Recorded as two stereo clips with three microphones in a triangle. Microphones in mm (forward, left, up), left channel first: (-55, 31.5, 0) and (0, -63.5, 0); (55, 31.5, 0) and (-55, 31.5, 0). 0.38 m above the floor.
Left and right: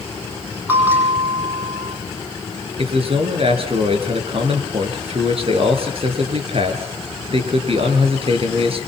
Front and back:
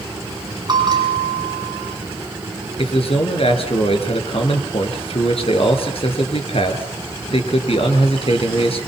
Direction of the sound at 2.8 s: 30° right.